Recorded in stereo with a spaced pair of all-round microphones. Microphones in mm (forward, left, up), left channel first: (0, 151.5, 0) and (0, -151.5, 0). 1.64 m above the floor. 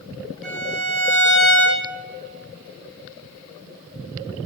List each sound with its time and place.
0.4 s a violin: centre (ahead or behind), 1.5 m